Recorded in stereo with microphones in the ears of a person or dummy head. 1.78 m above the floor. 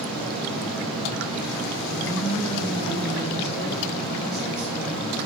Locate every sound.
0.0 s a fan: centre (ahead or behind), 0.8 m
1.9 s a woman speaking: 40° right (ahead or behind), 1.8 m